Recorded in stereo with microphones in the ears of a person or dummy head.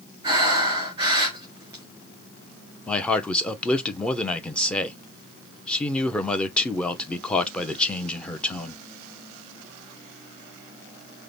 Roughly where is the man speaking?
Centre.